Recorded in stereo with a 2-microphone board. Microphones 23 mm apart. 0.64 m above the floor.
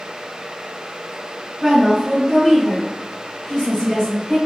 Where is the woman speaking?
20° right (ahead or behind), 1.4 m; by 4.4 s 45° left (ahead or behind), 3 m.